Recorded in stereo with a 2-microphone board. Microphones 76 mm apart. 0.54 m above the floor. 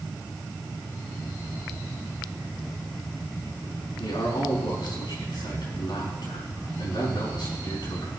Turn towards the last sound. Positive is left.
turn(degrees=75)  # may be behind; listen again after turning